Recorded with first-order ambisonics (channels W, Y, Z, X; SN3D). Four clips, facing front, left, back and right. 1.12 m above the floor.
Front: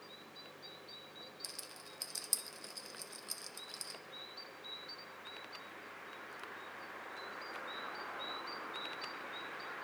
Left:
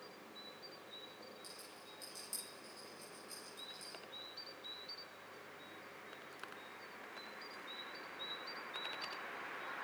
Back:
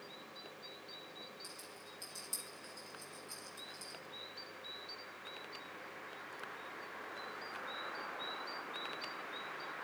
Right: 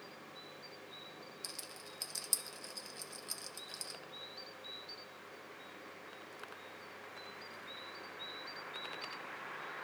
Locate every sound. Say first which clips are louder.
1.4 s a rattle: right 6 dB, front 2 dB; 50° right, 0.9 m